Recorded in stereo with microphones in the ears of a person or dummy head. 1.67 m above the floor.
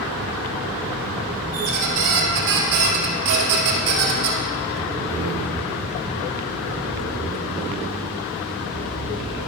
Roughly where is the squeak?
Right.